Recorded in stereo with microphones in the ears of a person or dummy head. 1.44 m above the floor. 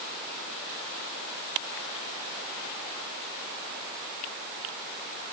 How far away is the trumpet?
No trumpet in this recording.